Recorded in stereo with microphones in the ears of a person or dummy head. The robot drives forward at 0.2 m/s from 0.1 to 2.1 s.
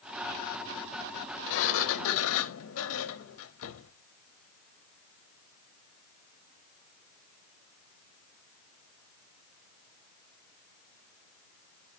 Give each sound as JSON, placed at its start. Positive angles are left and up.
{"t": 1.5, "sound": "a sliding door", "side_deg": 70, "distance_m": 0.8}